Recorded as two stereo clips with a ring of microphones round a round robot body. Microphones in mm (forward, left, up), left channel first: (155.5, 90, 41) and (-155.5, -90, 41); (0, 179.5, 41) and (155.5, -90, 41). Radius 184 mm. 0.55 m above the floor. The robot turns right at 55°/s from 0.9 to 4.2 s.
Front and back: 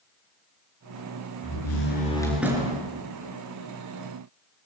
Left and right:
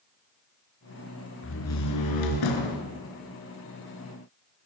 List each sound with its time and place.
1.4 s a door slam: 70° left, 5.5 m; by 2.9 s 145° left, 5.5 m